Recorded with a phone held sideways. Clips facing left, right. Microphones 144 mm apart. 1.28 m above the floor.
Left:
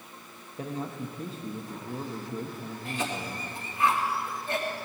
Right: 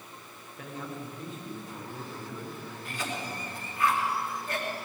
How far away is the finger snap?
No finger snap in this recording.